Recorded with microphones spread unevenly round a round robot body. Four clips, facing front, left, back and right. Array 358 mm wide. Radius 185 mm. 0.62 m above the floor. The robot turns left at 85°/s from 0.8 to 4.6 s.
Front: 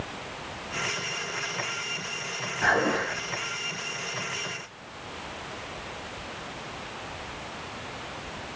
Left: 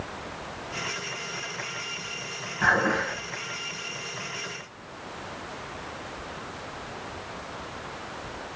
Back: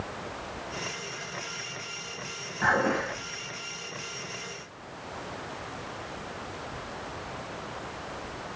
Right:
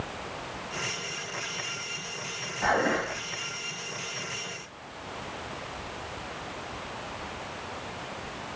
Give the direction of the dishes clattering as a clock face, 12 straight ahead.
9 o'clock.